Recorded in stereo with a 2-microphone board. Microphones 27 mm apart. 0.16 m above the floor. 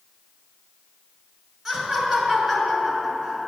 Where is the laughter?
25° right (ahead or behind), 1.8 m.